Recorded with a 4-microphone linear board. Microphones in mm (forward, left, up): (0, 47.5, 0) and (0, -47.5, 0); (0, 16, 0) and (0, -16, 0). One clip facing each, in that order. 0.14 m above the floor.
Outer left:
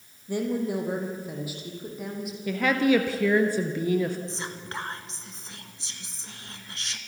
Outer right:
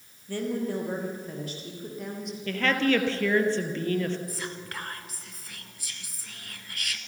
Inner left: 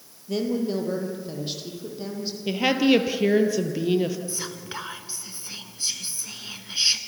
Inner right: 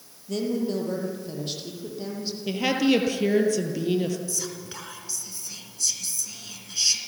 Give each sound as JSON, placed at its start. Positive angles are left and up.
{"t": 0.3, "sound": "a woman speaking", "side_deg": 15, "distance_m": 4.5}
{"t": 2.5, "sound": "a woman speaking", "side_deg": 10, "distance_m": 3.0}
{"t": 4.3, "sound": "whispering", "side_deg": 25, "distance_m": 2.0}